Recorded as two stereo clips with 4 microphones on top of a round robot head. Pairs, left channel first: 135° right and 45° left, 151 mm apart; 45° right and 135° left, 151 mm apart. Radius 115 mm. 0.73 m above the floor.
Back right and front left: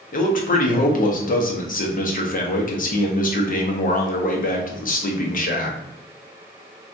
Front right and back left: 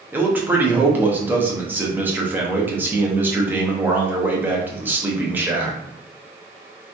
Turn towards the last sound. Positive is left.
turn(degrees=-145)